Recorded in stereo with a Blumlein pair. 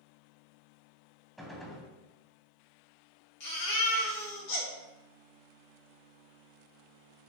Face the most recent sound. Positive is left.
turn(degrees=55)